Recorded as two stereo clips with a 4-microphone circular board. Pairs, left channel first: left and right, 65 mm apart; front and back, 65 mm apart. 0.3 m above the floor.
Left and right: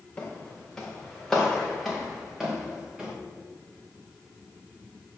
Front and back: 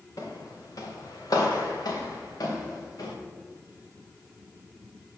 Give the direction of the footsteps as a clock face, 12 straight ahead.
11 o'clock.